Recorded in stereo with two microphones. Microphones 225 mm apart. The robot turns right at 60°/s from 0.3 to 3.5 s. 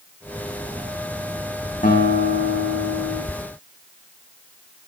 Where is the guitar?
35° left, 5 m; by 3.2 s 115° left, 5 m.